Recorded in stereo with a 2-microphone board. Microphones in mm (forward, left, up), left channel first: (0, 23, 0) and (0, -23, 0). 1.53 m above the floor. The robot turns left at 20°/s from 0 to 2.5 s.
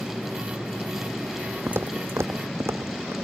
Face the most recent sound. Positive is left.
turn(degrees=-75)  # may be behind; listen again after turning